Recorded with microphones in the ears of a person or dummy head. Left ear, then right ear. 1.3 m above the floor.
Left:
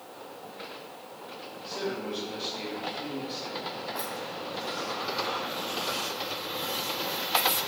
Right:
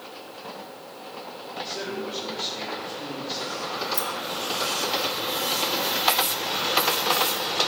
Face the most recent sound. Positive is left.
turn(degrees=-80)